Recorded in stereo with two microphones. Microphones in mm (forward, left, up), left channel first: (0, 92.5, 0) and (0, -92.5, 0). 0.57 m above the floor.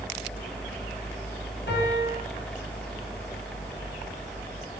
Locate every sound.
1.7 s a piano: 75° left (ahead or behind), 5.5 m